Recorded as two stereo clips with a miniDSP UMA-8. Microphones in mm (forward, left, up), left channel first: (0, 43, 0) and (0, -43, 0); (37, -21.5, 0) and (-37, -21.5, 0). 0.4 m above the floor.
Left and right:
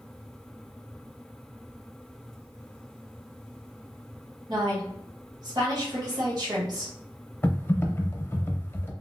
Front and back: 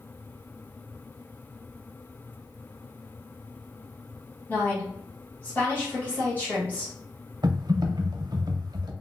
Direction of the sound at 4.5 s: 70° right.